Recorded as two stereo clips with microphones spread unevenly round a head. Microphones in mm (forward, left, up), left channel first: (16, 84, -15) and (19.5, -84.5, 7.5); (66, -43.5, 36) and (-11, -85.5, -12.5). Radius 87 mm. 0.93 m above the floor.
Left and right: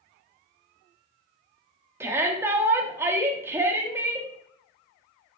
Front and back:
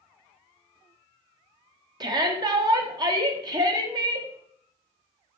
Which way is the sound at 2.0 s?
170° right.